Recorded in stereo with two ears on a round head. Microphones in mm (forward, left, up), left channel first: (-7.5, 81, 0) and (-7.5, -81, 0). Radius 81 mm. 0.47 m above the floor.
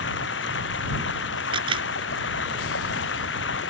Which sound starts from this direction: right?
A camera shutter, at 1.5 s.